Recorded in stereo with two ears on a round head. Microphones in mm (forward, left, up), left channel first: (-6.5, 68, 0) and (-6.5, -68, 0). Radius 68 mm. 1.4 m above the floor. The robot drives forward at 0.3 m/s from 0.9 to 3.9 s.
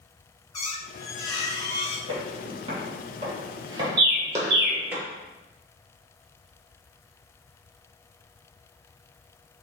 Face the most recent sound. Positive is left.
turn(degrees=-65)  # may be behind; listen again after turning